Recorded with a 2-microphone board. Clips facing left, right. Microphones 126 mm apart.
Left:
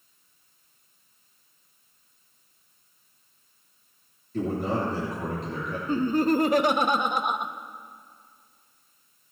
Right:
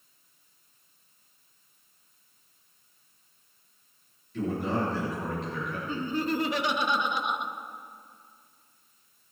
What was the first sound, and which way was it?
A man speaking, 45° left (ahead or behind).